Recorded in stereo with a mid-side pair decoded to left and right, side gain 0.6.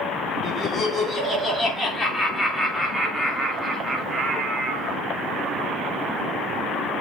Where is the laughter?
30° left, 4 m; by 5.0 s 35° right, 3 m.